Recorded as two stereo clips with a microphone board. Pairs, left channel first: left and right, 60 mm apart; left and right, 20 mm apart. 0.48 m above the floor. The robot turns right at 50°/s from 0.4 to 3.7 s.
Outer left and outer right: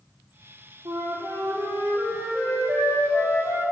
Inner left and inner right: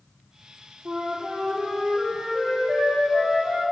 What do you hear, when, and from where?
0.8 s a flute: 70° right, 4.5 m; by 3.6 s 70° left, 4.5 m